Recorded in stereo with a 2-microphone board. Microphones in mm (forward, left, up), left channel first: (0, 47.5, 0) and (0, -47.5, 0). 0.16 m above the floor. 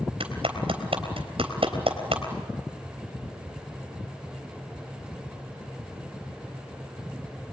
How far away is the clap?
About 3.5 m.